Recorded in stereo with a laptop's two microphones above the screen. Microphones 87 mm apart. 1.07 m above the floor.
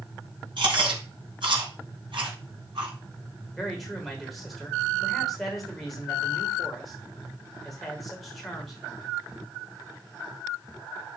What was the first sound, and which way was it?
Chewing, 70° right (ahead or behind).